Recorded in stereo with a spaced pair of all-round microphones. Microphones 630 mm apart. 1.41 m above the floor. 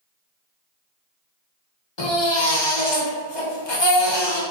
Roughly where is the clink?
No clink in this recording.